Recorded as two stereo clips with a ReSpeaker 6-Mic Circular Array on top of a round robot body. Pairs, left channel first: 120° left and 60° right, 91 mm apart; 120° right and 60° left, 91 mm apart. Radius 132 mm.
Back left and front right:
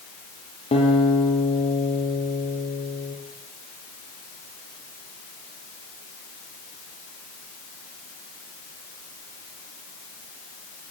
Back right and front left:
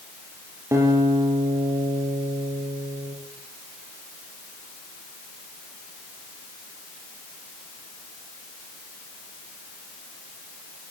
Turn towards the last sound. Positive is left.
turn(degrees=120)